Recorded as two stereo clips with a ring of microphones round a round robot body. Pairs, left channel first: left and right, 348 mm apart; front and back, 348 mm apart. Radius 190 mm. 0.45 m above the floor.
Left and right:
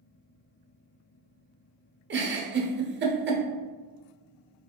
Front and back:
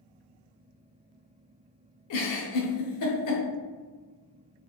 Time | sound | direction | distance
2.1 | a giggle | 35° right | 1.0 m